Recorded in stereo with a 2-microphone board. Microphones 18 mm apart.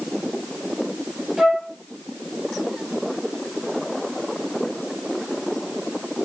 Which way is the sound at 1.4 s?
15° right (ahead or behind).